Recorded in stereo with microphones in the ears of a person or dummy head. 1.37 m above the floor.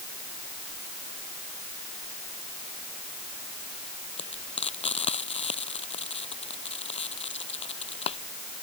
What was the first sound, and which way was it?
Frying, 25° left (ahead or behind).